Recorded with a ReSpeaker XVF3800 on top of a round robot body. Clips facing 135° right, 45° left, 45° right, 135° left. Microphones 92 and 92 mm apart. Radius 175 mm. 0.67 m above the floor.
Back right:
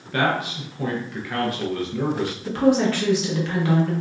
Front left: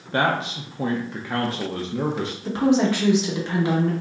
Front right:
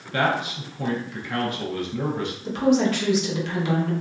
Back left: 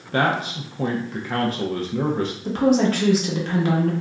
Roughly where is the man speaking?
Left.